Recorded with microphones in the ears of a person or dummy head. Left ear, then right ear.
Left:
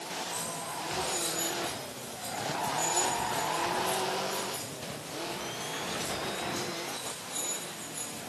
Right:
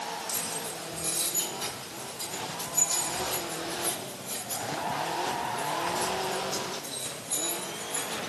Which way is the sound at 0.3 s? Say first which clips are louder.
Right 2 dB; 60° right (ahead or behind).